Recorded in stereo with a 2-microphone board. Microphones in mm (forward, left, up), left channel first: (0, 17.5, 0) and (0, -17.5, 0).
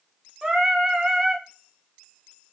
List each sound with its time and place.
0.4 s singing: 25° right (ahead or behind), 0.6 m